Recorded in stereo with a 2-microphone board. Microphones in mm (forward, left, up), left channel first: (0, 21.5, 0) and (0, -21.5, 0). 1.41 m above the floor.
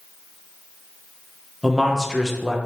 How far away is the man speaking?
About 0.6 m.